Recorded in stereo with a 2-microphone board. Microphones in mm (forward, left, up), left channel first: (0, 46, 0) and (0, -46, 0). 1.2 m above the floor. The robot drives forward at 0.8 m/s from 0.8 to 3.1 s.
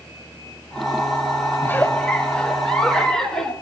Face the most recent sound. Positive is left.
turn(degrees=5)  # may be behind; listen again after turning